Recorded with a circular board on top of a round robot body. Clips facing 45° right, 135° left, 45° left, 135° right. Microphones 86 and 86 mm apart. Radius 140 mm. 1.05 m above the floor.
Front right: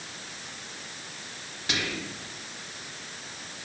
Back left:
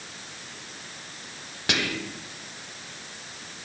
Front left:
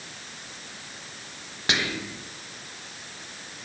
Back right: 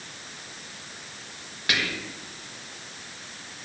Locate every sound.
1.7 s whispering: 110° left, 1.2 m